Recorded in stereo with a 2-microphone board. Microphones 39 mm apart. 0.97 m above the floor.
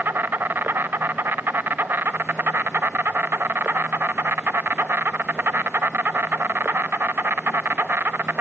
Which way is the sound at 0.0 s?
65° right (ahead or behind).